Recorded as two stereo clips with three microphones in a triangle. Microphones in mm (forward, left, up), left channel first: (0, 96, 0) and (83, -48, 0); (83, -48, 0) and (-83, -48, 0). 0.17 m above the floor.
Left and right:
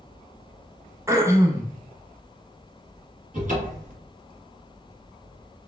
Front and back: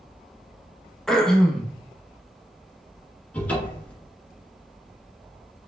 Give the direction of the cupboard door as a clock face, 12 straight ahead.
3 o'clock.